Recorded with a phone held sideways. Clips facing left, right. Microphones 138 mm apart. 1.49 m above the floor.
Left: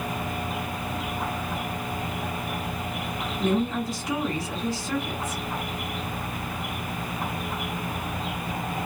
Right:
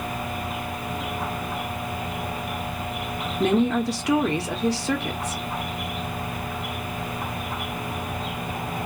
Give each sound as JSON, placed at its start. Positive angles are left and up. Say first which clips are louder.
{"t": 3.4, "sound": "a woman speaking", "louder": "right 5 dB", "side_deg": -80, "distance_m": 0.7}